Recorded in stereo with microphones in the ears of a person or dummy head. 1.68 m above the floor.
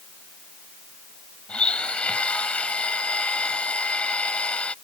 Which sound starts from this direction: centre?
A blender, at 1.5 s.